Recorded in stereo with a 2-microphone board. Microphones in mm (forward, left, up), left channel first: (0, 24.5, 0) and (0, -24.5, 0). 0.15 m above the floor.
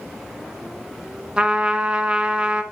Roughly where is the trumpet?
Right.